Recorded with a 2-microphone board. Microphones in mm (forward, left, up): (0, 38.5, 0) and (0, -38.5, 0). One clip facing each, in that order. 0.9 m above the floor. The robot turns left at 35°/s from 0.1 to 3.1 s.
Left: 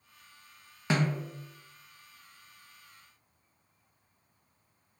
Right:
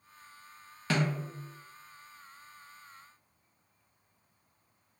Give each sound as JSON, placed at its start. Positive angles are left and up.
{"t": 0.9, "sound": "a snare drum", "side_deg": 20, "distance_m": 0.7}